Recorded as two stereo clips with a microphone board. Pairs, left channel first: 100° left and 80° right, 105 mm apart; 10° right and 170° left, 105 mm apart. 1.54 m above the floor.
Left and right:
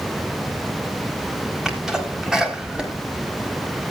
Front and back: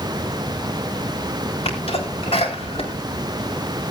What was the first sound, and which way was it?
A sneeze, 5° left.